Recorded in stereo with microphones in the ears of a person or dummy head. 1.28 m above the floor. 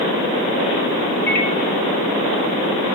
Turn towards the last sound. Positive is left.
turn(degrees=5)  # may be behind; listen again after turning